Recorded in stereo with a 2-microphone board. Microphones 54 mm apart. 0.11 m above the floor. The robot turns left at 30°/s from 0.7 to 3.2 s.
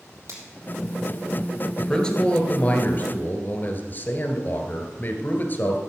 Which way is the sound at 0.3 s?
70° right (ahead or behind).